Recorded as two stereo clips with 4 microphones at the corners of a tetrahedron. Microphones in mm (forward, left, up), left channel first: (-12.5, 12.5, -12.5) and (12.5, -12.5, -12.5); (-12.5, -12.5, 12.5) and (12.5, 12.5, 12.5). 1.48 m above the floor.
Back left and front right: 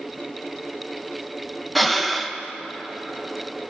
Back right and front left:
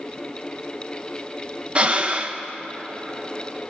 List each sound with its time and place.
1.8 s breathing: 55° left, 0.7 m